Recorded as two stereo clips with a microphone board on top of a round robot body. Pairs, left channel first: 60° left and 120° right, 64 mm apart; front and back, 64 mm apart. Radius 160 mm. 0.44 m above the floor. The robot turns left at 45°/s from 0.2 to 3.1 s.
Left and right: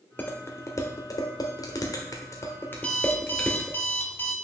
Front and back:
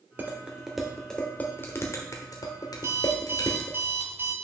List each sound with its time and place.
0.2 s dishes clattering: 120° left, 1.4 m; by 3.8 s 10° right, 1.4 m
2.8 s an alarm clock: 135° left, 1.3 m; by 4.3 s 120° left, 1.3 m